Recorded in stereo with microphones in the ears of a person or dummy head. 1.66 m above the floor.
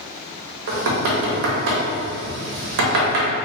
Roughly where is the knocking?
Right.